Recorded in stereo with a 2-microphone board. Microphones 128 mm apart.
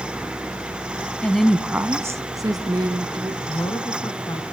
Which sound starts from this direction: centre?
A woman speaking, at 1.2 s.